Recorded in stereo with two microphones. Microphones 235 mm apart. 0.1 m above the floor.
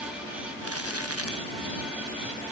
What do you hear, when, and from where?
0.6 s crumpling: 80° right